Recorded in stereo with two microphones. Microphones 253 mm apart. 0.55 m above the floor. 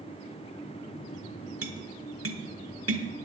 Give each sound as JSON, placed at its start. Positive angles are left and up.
{"t": 1.6, "sound": "tapping", "side_deg": -65, "distance_m": 1.2}